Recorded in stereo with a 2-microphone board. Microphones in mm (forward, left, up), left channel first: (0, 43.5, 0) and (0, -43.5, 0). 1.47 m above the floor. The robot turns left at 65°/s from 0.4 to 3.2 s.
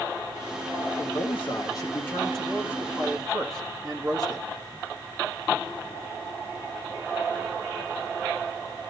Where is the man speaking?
95° left, 1.8 m; by 4.5 s 50° right, 1.8 m.